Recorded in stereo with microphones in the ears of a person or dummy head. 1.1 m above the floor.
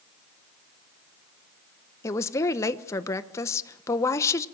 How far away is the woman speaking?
About 0.9 m.